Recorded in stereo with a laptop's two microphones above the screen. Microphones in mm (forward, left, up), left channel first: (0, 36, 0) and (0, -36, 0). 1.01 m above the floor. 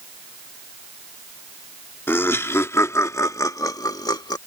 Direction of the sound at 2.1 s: 35° left (ahead or behind).